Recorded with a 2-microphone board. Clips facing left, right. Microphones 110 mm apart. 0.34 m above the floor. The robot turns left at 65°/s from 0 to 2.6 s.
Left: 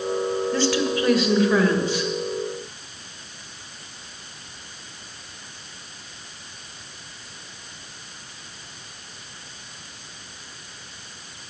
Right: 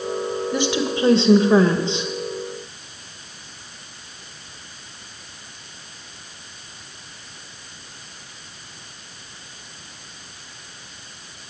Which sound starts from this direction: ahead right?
A woman speaking, at 0.5 s.